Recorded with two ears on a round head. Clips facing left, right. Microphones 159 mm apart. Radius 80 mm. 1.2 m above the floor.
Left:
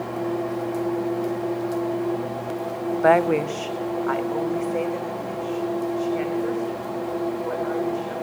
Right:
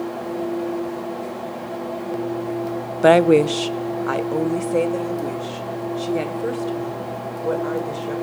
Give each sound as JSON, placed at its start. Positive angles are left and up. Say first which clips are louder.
{"t": 3.0, "sound": "a woman speaking", "louder": "right 6 dB", "side_deg": -35, "distance_m": 0.7}